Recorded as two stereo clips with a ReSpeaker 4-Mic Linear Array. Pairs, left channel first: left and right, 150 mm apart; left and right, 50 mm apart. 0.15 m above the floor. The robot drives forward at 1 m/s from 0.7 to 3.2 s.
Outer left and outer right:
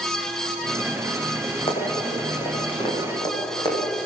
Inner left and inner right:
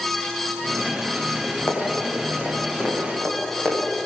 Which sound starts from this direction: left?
Running footsteps, at 1.7 s.